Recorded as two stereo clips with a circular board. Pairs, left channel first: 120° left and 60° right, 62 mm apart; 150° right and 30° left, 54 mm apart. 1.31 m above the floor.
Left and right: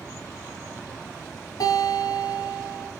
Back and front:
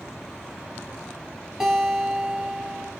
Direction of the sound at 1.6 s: 110° left.